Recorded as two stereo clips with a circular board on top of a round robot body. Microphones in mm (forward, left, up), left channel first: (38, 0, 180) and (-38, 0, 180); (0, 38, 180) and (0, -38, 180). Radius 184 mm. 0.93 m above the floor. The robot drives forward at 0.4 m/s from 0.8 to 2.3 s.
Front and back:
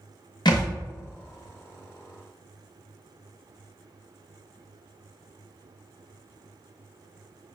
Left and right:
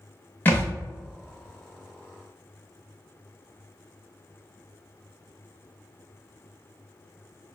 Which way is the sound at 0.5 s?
25° left.